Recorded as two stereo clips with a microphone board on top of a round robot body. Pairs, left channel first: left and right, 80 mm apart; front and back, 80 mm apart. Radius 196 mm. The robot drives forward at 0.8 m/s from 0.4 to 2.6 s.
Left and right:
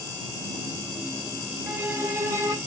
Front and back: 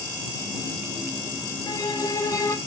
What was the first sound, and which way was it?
A violin, 30° right.